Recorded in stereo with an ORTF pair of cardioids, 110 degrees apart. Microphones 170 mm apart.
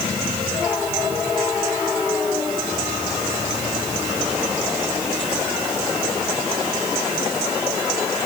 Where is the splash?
No splash in this recording.